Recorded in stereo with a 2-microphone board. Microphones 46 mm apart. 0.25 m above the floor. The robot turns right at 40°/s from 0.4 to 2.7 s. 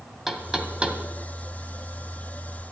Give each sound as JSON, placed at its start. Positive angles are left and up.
{"t": 0.3, "sound": "knocking", "side_deg": -5, "distance_m": 1.6}